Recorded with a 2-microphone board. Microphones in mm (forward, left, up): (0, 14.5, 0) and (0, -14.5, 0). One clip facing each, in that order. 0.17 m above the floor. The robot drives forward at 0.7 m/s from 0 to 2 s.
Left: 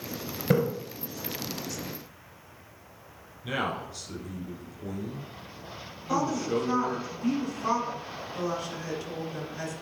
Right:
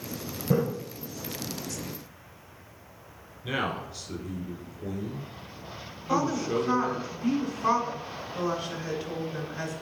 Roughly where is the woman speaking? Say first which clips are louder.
Right 1 dB; right.